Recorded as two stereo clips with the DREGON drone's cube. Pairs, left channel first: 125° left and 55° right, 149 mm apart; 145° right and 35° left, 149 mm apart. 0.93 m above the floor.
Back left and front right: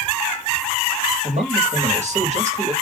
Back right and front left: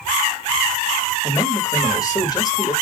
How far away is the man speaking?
About 1.5 m.